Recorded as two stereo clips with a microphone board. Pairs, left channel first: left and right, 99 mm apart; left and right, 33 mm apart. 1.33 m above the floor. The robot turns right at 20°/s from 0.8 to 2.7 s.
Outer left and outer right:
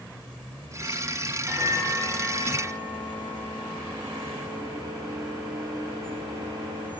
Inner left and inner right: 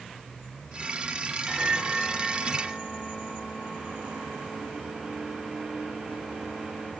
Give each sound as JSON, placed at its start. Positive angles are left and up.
{"t": 1.5, "sound": "a microwave", "side_deg": -30, "distance_m": 1.9}